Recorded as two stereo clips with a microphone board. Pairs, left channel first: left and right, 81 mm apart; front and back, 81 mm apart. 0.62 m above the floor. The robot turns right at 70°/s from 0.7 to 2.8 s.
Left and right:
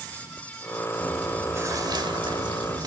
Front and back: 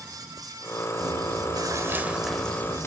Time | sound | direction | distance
1.0 | chewing | 175° left | 1.3 m